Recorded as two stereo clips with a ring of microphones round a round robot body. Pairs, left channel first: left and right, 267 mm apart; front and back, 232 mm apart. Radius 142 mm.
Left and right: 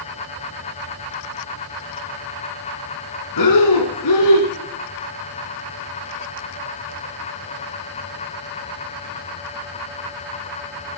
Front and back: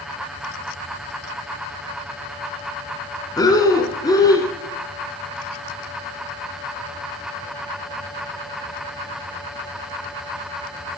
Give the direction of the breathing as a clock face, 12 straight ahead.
10 o'clock.